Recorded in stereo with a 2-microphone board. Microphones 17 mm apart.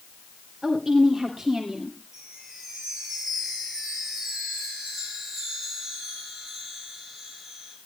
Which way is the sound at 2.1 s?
20° right (ahead or behind).